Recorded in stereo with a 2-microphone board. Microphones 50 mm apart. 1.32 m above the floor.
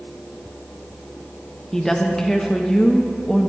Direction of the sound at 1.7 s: 10° left (ahead or behind).